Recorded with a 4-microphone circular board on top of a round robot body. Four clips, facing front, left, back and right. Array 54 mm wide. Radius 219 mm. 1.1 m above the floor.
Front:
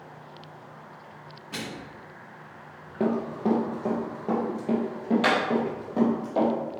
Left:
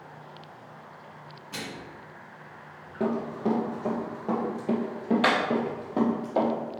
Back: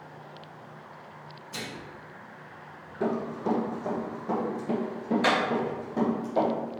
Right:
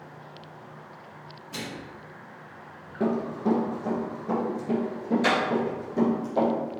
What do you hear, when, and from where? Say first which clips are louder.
1.5 s a microwave: right 1 dB, front 3 dB; 10° left, 1.2 m
3.0 s running footsteps: right 2 dB, front 3 dB; 10° left, 1.9 m; by 6.5 s 70° left, 3.5 m